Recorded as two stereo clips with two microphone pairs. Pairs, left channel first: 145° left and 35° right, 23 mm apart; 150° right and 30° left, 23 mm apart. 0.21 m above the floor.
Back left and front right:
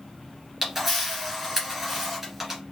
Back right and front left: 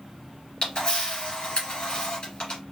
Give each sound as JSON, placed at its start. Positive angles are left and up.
{"t": 0.6, "sound": "a camera shutter", "azimuth_deg": -110, "distance_m": 1.8}